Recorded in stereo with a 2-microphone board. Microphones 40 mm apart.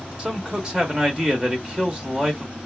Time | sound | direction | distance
0.2 | a man speaking | 20° right (ahead or behind) | 0.9 m